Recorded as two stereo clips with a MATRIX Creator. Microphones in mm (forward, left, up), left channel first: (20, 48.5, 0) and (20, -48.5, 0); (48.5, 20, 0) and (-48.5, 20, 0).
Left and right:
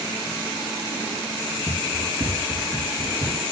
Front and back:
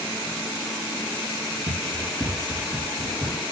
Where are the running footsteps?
115° right, 3.5 m; by 3.4 s 130° right, 3.5 m.